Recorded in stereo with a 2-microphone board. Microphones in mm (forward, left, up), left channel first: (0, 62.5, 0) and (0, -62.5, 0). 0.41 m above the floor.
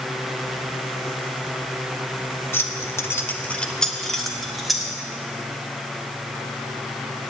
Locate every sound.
2.5 s keys jangling: 20° left (ahead or behind), 0.8 m; by 4.9 s centre (ahead or behind), 2.0 m